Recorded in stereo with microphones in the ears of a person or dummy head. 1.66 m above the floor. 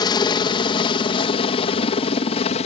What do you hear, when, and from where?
0.0 s a helicopter: 20° left (ahead or behind); by 2.7 s 35° left (ahead or behind)